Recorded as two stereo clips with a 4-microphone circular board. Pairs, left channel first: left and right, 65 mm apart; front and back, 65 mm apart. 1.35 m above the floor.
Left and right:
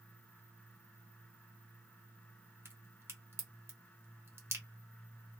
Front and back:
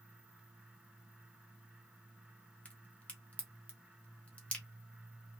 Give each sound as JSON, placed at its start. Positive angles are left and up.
{"t": 2.6, "sound": "a crack", "azimuth_deg": -60, "distance_m": 1.1}